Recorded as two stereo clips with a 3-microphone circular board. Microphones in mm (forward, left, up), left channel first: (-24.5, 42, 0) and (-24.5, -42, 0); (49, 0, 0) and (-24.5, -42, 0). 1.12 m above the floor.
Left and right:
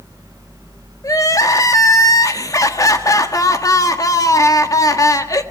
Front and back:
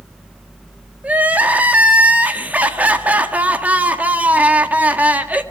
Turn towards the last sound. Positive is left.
turn(degrees=140)